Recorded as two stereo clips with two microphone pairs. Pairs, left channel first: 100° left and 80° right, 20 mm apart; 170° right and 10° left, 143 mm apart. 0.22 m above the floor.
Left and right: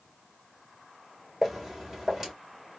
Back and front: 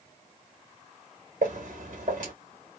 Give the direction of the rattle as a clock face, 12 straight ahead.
No rattle in this recording.